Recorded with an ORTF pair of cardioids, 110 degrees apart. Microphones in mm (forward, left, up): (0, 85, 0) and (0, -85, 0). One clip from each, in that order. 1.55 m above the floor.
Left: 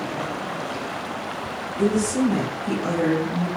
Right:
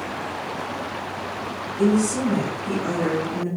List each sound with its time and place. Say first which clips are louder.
1.8 s a woman speaking: even; 30° left, 1.9 m; by 3.5 s 60° left, 1.5 m